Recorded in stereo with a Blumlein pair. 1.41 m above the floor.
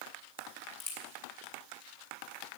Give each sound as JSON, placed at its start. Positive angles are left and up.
{"t": 0.4, "sound": "a crack", "azimuth_deg": 55, "distance_m": 3.0}